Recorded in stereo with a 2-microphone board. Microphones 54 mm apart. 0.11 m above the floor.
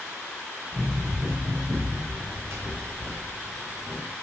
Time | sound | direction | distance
0.7 | running footsteps | 50° right (ahead or behind) | 5.5 m